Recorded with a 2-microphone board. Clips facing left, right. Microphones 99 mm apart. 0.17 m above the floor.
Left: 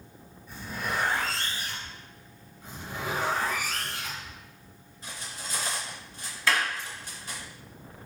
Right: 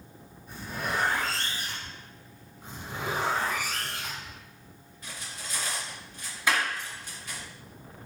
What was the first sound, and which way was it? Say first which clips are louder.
A zipper: even; 55° right (ahead or behind).